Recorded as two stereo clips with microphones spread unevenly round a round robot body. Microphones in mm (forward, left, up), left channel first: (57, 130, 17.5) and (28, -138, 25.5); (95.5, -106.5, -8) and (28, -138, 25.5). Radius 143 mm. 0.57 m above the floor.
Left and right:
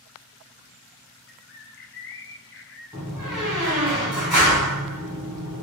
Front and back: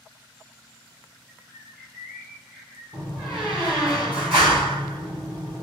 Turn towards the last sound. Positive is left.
turn(degrees=170)